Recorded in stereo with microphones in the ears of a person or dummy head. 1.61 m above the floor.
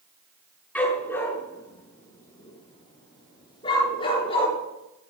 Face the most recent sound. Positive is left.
turn(degrees=40)  # may be behind; listen again after turning